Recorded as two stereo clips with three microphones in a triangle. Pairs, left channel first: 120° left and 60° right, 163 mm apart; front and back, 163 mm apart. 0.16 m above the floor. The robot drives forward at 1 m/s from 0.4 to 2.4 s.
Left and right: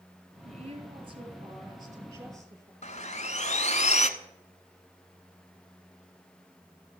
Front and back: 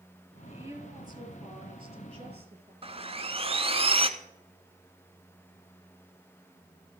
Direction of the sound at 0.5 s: 105° right.